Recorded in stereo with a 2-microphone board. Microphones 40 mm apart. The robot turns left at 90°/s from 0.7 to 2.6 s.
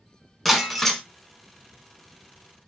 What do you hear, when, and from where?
0.5 s breaking glass: centre (ahead or behind), 0.8 m; by 1.0 s 15° left (ahead or behind), 0.8 m